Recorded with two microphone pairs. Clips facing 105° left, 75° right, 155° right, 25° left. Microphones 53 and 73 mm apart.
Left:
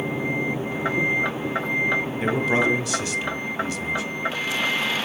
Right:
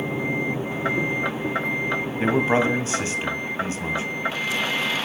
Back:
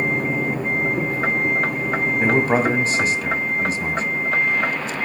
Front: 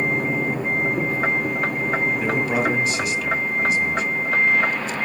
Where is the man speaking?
120° right, 1.6 m.